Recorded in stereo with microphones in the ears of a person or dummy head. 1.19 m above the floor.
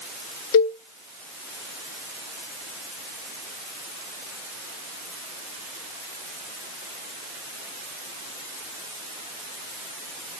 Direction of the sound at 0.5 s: 85° left.